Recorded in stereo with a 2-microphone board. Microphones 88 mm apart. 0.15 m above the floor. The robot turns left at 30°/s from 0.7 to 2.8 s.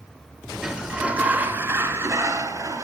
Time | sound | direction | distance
0.6 | a sliding door | 10° right | 0.8 m